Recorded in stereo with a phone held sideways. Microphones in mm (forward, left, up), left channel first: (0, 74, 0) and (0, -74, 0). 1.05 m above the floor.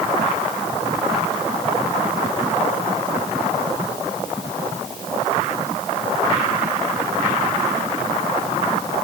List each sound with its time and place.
Only background noise.